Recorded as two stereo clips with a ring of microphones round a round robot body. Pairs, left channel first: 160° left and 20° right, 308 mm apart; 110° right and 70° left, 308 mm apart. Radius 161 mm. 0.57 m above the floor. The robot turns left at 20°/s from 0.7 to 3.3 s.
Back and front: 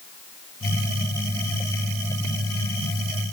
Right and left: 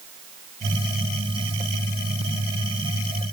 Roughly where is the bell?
No bell in this recording.